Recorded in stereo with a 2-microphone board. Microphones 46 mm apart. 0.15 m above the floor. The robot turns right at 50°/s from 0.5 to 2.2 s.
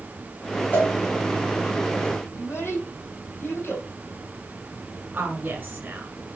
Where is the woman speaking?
40° right (ahead or behind), 1.9 m.